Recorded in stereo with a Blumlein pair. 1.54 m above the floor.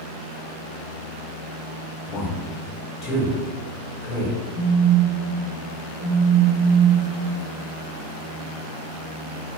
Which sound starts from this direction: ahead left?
A man speaking, at 2.1 s.